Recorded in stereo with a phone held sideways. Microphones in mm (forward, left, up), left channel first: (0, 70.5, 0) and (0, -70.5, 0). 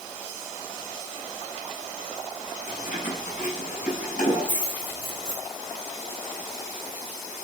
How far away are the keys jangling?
About 5.5 m.